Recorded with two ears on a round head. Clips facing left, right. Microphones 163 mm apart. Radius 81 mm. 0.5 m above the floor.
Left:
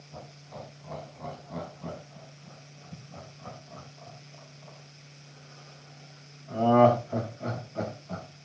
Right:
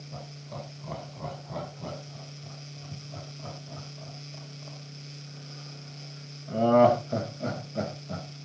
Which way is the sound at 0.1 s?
75° right (ahead or behind).